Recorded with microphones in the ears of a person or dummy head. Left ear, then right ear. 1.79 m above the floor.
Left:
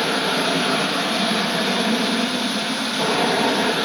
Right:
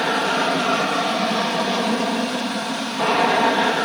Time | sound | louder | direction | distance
0.0 | an aircraft | right 1 dB | 35° right (ahead or behind) | ?